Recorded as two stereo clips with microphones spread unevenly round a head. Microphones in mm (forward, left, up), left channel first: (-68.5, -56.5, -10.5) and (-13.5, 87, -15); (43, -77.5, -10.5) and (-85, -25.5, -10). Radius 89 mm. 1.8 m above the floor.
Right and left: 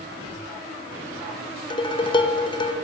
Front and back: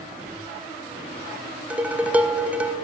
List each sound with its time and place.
1.7 s dishes clattering: 130° right, 0.9 m